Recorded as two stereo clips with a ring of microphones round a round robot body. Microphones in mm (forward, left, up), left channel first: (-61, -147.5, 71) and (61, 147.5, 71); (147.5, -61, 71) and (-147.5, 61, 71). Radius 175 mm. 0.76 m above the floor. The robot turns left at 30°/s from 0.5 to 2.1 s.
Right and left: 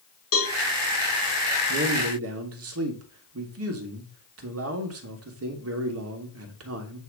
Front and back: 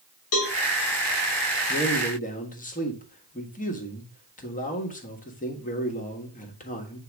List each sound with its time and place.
0.3 s a cowbell: 65° right, 3 m; by 0.6 s 70° right, 3 m
1.7 s a man speaking: 50° left, 1.5 m; by 7.0 s 35° left, 1.5 m